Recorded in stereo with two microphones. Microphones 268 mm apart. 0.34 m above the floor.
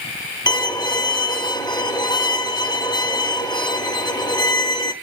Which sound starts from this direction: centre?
A violin, at 0.5 s.